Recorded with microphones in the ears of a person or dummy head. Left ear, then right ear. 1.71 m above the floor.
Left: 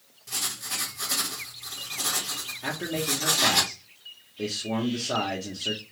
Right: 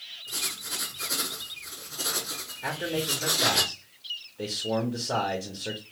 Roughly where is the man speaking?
Centre.